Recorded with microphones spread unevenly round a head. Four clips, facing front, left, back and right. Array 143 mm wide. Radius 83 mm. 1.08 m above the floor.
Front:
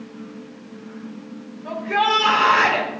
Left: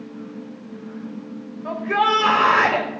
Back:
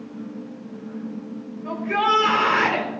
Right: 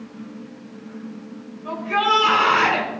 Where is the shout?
105° left, 5.5 m.